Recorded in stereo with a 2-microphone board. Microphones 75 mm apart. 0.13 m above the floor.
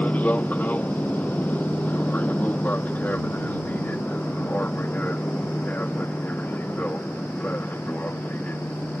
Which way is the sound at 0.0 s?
20° left (ahead or behind).